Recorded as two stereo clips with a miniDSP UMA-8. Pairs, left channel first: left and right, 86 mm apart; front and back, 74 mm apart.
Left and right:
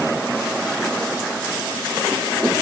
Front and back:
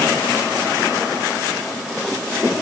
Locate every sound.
Only background noise.